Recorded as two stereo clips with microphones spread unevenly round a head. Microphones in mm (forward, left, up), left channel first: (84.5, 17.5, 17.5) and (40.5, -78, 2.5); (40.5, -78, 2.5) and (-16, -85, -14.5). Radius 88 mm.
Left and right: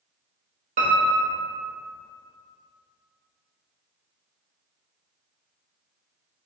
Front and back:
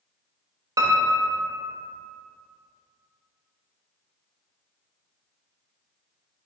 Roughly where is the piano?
Behind right.